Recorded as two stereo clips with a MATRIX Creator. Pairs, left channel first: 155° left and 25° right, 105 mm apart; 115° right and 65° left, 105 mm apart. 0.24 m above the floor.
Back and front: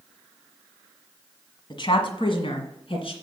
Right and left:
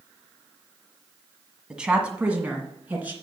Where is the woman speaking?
145° left, 1.4 m; by 3.1 s 140° left, 2.5 m.